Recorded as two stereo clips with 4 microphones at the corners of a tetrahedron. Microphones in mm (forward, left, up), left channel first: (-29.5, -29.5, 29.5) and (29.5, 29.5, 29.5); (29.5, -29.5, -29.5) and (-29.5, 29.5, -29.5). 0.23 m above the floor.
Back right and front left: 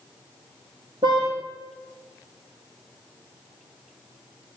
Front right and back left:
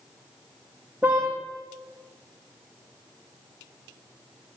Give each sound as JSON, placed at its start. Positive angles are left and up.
{"t": 1.0, "sound": "a car horn", "azimuth_deg": 60, "distance_m": 5.0}